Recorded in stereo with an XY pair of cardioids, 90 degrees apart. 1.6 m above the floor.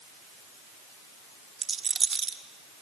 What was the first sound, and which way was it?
A rattle, 40° right.